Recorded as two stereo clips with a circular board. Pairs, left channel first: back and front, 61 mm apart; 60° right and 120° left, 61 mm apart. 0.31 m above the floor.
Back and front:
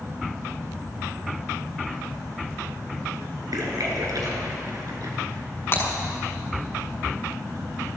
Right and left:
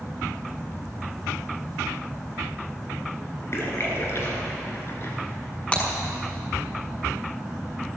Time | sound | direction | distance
3.5 | a splash | 15° right | 3 m
5.7 | breaking glass | 125° right | 6 m